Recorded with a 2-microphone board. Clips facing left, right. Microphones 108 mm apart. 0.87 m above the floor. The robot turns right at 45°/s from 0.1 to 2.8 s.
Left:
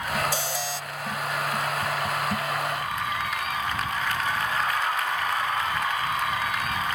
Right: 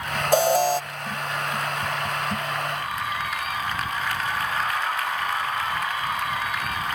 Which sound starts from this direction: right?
An alarm, at 0.3 s.